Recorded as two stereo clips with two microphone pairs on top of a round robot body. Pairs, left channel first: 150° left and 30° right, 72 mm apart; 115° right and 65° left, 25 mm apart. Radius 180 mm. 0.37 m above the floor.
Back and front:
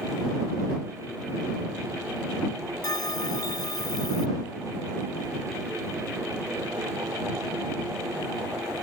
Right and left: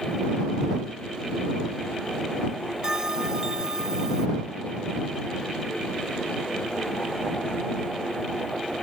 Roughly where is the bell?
Behind left.